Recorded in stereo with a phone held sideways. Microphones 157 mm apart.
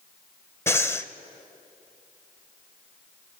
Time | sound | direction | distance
0.7 | breathing | 15° left (ahead or behind) | 0.7 m